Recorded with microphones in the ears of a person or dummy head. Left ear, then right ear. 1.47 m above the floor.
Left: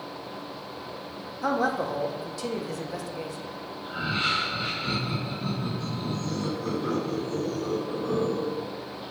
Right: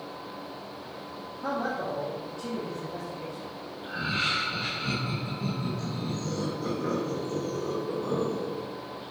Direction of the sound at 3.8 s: 35° right (ahead or behind).